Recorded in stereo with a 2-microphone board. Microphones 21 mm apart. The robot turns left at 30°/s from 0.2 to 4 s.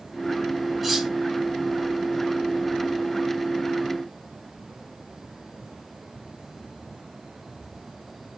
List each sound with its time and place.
0.8 s cutlery clinking: 10° right (ahead or behind), 1.1 m; by 1.1 s 20° right (ahead or behind), 1.1 m